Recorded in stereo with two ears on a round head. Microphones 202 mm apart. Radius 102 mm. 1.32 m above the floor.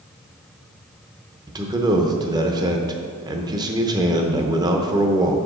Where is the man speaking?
20° right (ahead or behind), 0.7 m.